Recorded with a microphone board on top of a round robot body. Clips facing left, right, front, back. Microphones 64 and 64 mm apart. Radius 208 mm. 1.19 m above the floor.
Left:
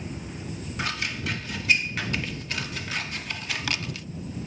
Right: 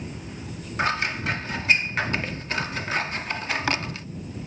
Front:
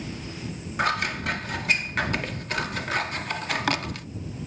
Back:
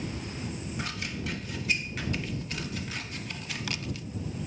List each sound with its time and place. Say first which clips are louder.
0.8 s scissors: right 6 dB, front 14 dB; 35° right